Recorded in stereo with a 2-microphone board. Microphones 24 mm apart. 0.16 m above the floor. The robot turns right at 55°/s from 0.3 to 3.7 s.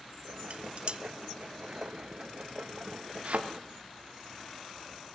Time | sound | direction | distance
0.5 | dishes clattering | 55° right (ahead or behind) | 1.2 m
3.2 | a thud | 55° right (ahead or behind) | 3.5 m